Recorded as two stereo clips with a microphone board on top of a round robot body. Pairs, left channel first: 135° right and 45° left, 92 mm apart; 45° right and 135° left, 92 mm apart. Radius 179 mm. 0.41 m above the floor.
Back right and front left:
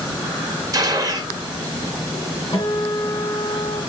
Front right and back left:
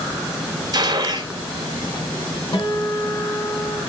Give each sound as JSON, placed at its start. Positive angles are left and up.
{"t": 0.7, "sound": "a gunshot", "azimuth_deg": 95, "distance_m": 1.6}
{"t": 2.5, "sound": "a guitar", "azimuth_deg": -85, "distance_m": 2.5}